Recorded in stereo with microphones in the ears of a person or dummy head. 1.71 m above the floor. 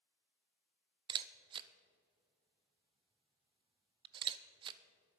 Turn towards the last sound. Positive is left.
turn(degrees=-30)  # may be behind; listen again after turning